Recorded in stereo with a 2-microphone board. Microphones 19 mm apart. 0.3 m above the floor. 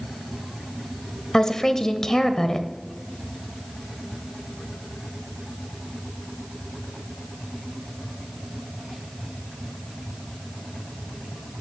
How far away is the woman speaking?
About 0.9 m.